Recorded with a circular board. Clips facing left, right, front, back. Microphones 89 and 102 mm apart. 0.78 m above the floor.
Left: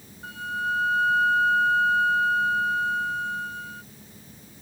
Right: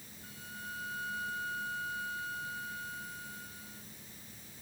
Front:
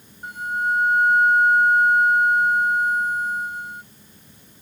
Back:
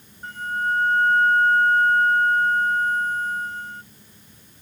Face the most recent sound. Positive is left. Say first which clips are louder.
# left 18 dB, front 1 dB
turn(degrees=75)